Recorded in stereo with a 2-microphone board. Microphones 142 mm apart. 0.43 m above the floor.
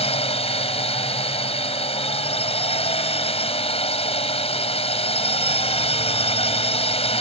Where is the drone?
45° left (ahead or behind).